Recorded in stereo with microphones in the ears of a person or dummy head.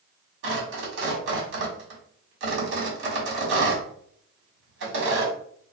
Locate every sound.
0.4 s tearing paper: 65° right (ahead or behind), 1.3 m